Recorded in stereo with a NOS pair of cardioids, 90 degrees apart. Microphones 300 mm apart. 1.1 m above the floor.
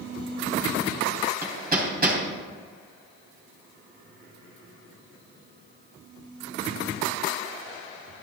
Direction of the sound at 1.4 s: 30° right.